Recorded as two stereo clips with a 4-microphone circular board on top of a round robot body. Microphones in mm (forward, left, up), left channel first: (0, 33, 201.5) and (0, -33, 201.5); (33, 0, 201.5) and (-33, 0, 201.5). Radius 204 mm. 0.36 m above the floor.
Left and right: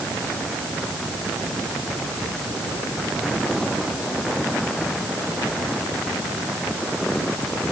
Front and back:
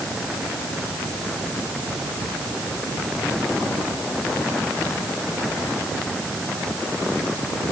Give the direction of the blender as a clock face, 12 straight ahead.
No blender in this recording.